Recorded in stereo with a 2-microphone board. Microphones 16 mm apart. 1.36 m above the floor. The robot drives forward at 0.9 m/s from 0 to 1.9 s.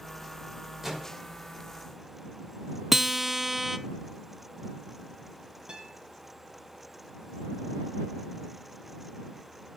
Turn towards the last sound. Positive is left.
turn(degrees=-80)